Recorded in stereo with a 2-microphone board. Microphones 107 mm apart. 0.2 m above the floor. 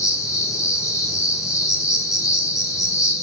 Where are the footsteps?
I don't hear footsteps.